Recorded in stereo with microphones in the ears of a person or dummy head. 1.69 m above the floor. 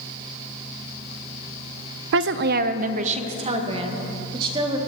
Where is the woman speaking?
70° right (ahead or behind), 0.6 m; by 4.8 s 25° right (ahead or behind), 2 m.